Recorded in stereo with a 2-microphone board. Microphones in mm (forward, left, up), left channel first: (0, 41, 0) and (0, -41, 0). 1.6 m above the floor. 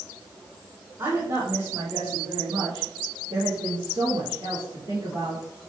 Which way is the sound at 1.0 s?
45° right (ahead or behind).